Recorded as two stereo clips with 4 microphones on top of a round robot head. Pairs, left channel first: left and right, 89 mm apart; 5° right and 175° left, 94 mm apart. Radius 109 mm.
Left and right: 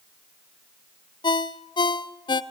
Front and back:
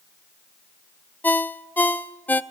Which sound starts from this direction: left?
A ringtone, at 1.2 s.